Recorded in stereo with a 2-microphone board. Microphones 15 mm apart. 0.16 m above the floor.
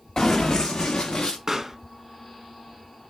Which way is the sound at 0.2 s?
55° left (ahead or behind).